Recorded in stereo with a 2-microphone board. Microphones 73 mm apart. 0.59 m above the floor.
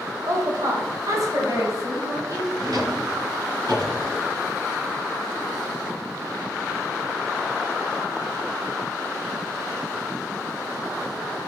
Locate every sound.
0.2 s a woman speaking: 50° right (ahead or behind), 2 m; by 2.5 s 45° right (ahead or behind), 5 m
2.6 s a drawer: 65° right (ahead or behind), 4 m